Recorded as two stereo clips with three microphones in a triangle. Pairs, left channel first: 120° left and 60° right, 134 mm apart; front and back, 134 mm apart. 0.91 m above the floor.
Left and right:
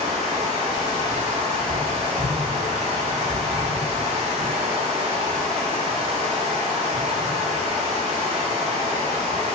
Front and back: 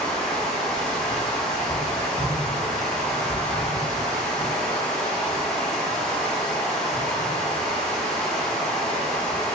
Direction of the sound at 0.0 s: 85° right.